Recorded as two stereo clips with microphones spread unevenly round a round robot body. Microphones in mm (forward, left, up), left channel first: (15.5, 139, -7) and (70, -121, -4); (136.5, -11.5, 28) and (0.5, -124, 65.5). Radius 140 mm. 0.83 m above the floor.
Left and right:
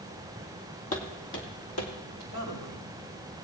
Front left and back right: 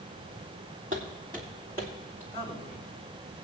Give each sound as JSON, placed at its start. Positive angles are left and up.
{"t": 0.9, "sound": "footsteps", "azimuth_deg": 165, "distance_m": 1.6}
{"t": 2.3, "sound": "a man speaking", "azimuth_deg": 145, "distance_m": 5.0}